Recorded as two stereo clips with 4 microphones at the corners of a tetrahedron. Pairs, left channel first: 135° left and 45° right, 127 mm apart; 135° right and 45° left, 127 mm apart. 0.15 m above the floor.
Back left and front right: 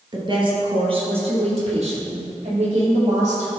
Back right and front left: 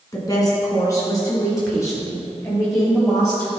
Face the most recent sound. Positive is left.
turn(degrees=-70)